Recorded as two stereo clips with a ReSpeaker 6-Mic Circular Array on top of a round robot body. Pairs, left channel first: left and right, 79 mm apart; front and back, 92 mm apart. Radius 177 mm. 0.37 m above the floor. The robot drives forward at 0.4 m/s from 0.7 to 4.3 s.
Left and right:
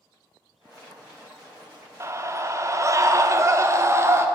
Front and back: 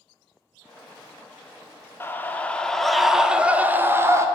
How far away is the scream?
About 1.1 m.